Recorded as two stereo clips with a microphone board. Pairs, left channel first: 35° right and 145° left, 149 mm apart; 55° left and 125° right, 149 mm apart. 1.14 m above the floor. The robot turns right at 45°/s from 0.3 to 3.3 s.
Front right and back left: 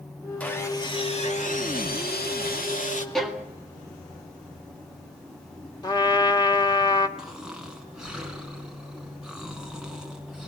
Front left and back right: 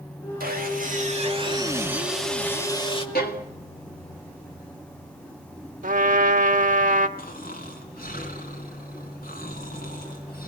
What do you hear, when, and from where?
0.4 s sawing: 115° right, 2.5 m; by 3.0 s 5° left, 2.5 m
3.1 s a violin: 55° left, 2 m; by 3.5 s 60° left, 2 m
5.8 s a trumpet: 95° right, 1.4 m
7.2 s snoring: 60° left, 3 m